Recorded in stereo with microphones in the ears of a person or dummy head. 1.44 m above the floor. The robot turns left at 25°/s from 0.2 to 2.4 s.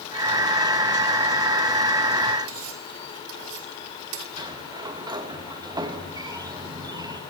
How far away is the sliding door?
About 2.5 m.